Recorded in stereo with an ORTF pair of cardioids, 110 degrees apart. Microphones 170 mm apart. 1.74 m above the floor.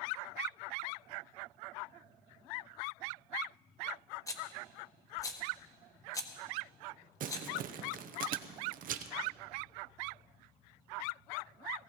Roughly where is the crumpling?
Ahead right.